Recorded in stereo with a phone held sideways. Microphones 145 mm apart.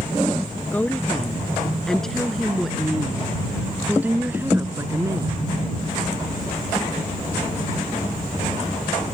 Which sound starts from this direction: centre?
A woman speaking, at 0.7 s.